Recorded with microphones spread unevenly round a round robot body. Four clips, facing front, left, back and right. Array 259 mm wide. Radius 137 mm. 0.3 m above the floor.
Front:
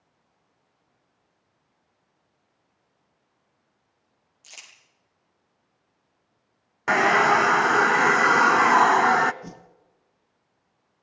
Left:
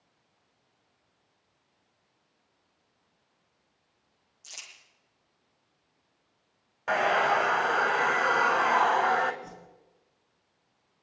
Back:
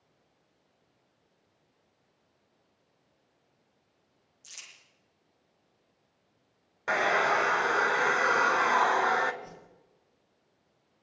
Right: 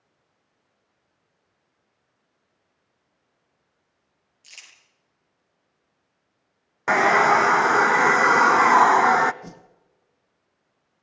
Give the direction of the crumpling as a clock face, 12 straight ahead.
11 o'clock.